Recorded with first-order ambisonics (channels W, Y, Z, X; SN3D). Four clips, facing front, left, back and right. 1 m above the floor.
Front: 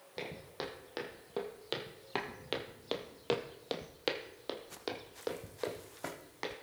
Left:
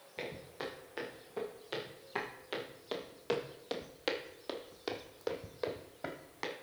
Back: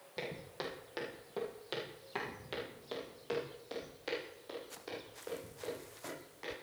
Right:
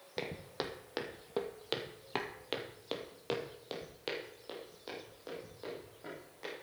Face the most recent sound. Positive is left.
turn(degrees=45)